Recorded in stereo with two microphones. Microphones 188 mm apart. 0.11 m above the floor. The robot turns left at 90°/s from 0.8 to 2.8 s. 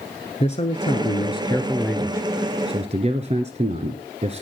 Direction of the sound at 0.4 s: 100° left.